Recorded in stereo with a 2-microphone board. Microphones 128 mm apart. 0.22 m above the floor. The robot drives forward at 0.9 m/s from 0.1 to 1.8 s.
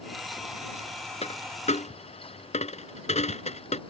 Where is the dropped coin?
55° left (ahead or behind); by 3.8 s 65° left (ahead or behind).